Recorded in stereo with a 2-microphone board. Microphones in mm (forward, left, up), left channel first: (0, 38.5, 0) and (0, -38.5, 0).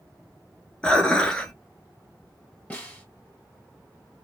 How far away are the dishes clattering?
About 0.8 m.